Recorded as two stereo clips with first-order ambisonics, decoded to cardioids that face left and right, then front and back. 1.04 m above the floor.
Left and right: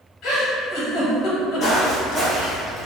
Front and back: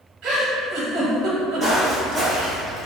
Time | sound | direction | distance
0.2 | a giggle | 135° left | 1.0 m
1.6 | footsteps | 115° left | 1.1 m